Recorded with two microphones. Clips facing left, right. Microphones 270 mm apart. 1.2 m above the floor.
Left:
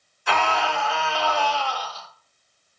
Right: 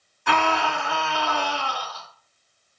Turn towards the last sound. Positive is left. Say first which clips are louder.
# right 1 dB
turn(degrees=-65)  # may be behind; listen again after turning